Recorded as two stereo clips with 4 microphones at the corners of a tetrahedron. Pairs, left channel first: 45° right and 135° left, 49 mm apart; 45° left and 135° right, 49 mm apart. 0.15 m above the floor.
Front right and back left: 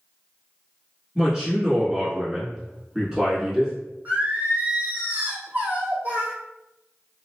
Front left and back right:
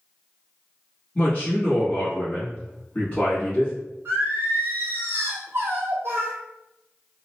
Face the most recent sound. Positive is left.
turn(degrees=-170)